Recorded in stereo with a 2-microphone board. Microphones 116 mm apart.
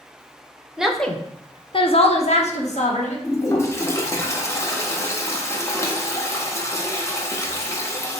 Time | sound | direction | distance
0.8 | a woman speaking | 5° right (ahead or behind) | 0.6 m
3.2 | a toilet flushing | 25° left (ahead or behind) | 0.6 m